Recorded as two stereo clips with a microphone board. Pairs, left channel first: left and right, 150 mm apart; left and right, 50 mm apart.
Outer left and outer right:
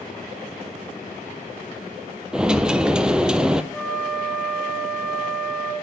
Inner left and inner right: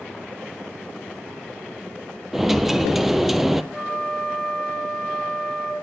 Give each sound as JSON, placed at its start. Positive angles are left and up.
{"t": 2.3, "sound": "a dropped coin", "side_deg": -5, "distance_m": 0.7}
{"t": 3.7, "sound": "a flute", "side_deg": 5, "distance_m": 3.0}